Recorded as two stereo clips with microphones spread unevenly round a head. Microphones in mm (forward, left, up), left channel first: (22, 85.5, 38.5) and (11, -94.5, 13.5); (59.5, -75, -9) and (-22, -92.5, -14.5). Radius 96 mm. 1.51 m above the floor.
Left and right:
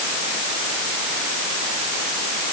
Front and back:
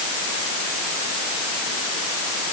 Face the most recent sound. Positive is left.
No sound to turn to.